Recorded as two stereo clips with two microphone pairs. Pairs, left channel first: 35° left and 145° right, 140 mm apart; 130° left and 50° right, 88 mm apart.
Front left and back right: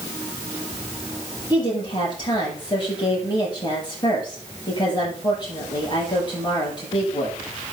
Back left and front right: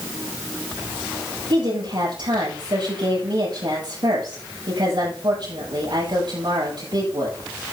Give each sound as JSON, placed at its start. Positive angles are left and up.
{"t": 1.5, "sound": "a woman speaking", "azimuth_deg": -20, "distance_m": 7.0}